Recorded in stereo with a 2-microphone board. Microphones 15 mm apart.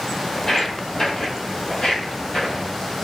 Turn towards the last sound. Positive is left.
turn(degrees=65)  # may be behind; listen again after turning